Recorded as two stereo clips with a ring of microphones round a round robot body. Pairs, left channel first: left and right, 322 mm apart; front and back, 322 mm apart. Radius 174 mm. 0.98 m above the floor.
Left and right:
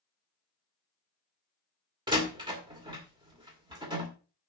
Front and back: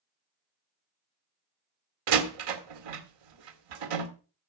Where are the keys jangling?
No keys jangling in this recording.